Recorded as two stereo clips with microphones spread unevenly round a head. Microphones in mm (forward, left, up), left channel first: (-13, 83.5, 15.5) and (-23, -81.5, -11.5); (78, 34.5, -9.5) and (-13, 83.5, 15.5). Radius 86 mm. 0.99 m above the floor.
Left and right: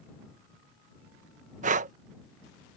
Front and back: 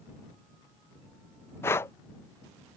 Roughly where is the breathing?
Right.